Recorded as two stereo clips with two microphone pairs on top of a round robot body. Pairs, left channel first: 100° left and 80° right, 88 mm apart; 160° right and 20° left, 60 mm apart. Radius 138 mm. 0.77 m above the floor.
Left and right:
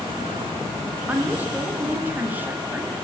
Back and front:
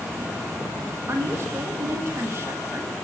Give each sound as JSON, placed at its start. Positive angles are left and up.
{"t": 1.1, "sound": "a woman speaking", "azimuth_deg": -20, "distance_m": 1.4}